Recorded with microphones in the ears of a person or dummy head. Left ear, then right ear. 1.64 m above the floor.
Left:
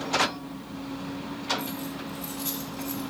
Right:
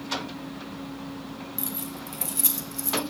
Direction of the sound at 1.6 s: 40° right (ahead or behind).